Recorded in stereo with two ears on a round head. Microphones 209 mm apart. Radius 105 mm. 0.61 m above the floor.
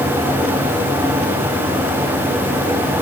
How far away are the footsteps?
No footsteps in this recording.